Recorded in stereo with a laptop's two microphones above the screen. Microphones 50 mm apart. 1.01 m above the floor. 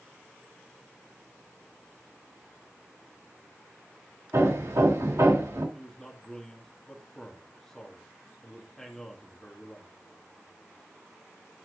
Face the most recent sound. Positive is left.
turn(degrees=10)  # may be behind; listen again after turning